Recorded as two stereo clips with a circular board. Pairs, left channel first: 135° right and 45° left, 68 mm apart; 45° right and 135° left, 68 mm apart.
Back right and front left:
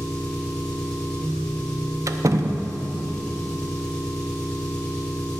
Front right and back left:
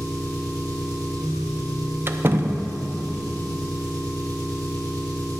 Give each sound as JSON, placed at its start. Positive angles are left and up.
{"t": 0.0, "sound": "an engine running", "azimuth_deg": 145, "distance_m": 3.0}
{"t": 2.1, "sound": "a door slam", "azimuth_deg": 80, "distance_m": 0.6}